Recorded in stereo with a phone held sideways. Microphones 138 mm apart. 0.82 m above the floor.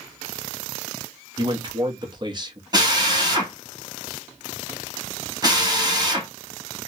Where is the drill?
30° right (ahead or behind), 1.9 m.